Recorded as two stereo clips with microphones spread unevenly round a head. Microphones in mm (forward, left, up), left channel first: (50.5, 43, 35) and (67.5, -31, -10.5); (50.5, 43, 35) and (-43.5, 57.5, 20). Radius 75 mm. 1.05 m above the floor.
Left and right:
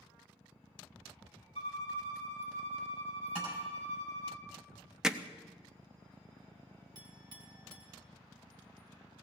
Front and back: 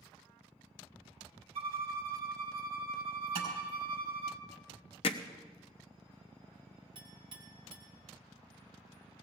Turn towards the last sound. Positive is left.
turn(degrees=-135)